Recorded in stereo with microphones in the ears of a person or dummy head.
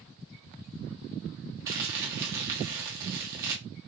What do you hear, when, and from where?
1.7 s crumpling: 20° right (ahead or behind), 1.1 m